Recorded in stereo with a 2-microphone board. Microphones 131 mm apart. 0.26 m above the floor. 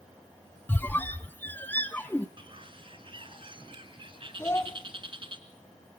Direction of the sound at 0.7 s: 15° left (ahead or behind).